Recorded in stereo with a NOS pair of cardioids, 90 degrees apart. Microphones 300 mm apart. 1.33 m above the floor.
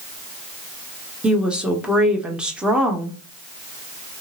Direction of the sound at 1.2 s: 5° right.